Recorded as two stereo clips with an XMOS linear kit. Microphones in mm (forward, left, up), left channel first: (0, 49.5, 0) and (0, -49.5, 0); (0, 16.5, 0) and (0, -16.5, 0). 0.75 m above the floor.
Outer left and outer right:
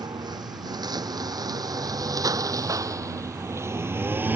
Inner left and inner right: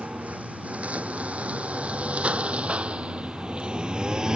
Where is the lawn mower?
45° right (ahead or behind); by 4.4 s 20° right (ahead or behind).